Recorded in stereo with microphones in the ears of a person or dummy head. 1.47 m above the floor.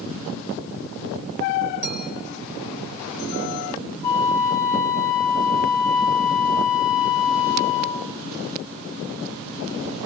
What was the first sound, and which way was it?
A clink, 60° right (ahead or behind).